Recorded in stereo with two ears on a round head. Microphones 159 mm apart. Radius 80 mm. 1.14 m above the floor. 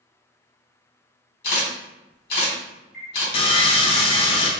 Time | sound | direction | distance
1.4 | a camera shutter | 55° left (ahead or behind) | 1.6 m
3.3 | sawing | 30° left (ahead or behind) | 0.5 m